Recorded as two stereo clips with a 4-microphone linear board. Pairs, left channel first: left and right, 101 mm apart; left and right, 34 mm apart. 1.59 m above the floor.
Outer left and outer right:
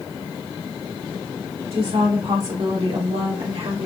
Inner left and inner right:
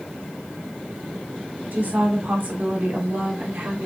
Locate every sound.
1.7 s a woman speaking: 75° right (ahead or behind), 2.5 m; by 3.9 s 90° right, 1.4 m